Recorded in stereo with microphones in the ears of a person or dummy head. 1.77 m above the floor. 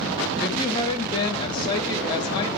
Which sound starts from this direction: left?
A woman speaking, at 0.4 s.